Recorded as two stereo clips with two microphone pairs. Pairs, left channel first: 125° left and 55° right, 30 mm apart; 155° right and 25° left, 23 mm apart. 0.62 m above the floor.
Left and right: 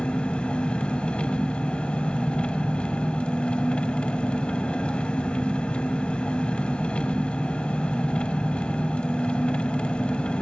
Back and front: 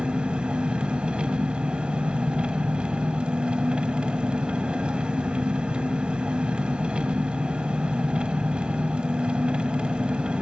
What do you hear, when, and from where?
0.0 s an engine running: 70° left, 1.0 m